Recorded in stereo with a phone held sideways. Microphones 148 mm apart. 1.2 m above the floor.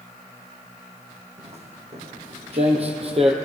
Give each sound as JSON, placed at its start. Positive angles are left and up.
{"t": 1.4, "sound": "footsteps", "side_deg": -45, "distance_m": 2.5}